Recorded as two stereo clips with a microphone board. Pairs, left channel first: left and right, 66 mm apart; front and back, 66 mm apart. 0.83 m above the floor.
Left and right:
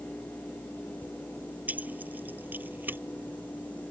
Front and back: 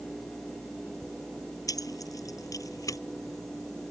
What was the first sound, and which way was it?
Keys jangling, 25° right.